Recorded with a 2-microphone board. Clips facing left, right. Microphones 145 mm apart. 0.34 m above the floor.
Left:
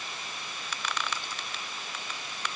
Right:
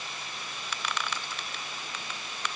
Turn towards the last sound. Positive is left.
No sound to turn to.